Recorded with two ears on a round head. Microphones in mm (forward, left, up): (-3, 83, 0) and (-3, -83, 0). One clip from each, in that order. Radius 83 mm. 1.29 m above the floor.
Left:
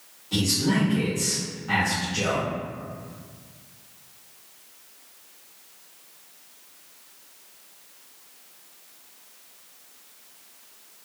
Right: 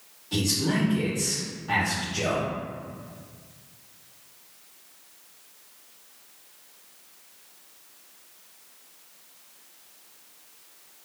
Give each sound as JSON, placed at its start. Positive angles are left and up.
{"t": 0.3, "sound": "a man speaking", "side_deg": -10, "distance_m": 0.7}